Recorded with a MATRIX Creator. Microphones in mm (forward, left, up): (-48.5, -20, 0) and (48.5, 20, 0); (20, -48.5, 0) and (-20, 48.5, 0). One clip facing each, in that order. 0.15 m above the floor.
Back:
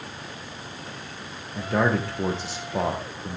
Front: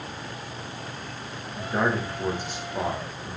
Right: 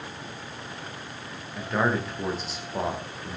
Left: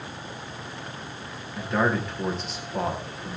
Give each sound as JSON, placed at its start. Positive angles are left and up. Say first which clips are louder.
{"t": 1.6, "sound": "a man speaking", "louder": "back 3 dB, left 1 dB", "azimuth_deg": -155, "distance_m": 7.0}